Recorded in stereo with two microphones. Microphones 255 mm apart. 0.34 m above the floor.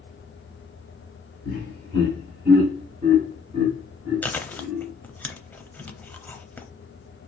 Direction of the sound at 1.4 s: 45° right (ahead or behind).